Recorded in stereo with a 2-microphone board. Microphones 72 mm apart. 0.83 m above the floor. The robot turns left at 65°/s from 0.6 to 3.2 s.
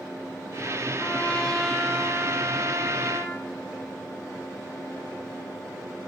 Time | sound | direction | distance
1.0 | a trumpet | 45° left | 3.5 m